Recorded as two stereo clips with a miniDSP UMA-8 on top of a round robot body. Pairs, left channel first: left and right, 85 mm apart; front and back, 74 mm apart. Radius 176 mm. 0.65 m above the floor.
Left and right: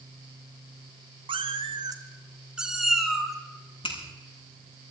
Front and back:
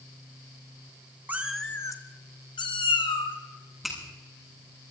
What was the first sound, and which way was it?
A cat meowing, 110° right.